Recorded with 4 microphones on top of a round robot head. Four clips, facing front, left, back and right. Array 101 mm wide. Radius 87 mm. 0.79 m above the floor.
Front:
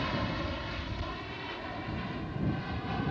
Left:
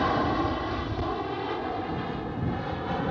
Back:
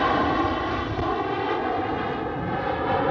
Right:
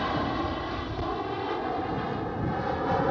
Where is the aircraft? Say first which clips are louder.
Left 3 dB, back 13 dB; 170° left; by 3.1 s 155° right.